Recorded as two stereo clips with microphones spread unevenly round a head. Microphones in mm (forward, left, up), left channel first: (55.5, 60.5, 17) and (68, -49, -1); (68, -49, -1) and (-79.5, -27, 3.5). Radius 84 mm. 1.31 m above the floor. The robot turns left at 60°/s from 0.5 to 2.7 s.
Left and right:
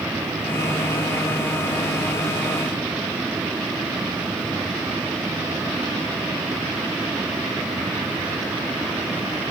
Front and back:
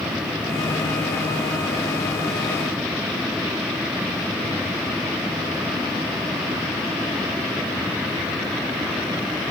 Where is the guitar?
I don't hear a guitar.